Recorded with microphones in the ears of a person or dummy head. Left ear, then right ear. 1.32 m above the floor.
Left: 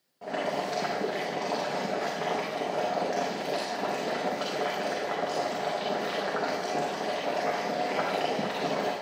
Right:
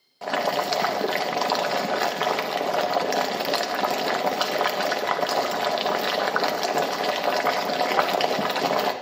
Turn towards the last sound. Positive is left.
turn(degrees=-45)  # may be behind; listen again after turning